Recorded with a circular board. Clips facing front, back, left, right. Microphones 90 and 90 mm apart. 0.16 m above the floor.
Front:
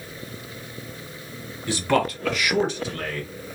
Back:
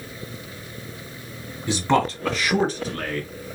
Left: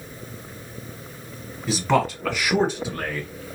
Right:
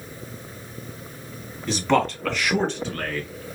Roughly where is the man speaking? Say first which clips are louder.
Back 2 dB, even; behind.